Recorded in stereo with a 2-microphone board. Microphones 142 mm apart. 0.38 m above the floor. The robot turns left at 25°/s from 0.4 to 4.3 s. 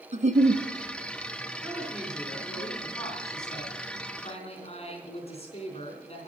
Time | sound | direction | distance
0.1 | a giggle | 55° right (ahead or behind) | 0.6 m
1.6 | a woman speaking | 165° right | 4 m